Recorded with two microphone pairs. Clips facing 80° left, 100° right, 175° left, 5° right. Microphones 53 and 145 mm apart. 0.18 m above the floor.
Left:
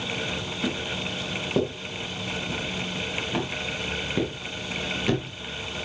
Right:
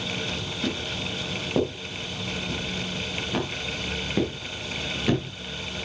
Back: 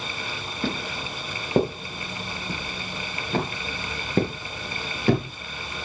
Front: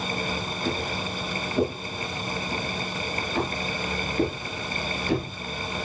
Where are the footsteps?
160° left, 8 m; by 5.3 s 175° left, 9 m.